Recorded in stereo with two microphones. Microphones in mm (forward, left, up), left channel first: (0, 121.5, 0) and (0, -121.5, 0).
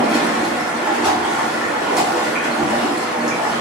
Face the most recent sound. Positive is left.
turn(degrees=-5)  # may be behind; listen again after turning